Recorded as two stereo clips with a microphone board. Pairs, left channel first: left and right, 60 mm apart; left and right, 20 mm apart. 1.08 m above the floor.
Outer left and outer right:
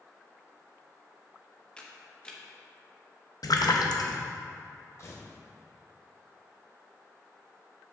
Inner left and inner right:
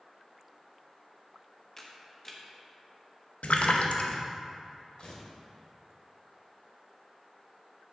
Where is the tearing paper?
50° left (ahead or behind), 1.5 m.